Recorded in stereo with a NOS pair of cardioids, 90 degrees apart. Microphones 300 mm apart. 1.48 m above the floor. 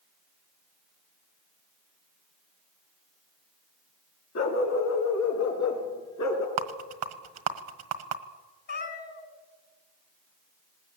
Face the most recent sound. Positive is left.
turn(degrees=40)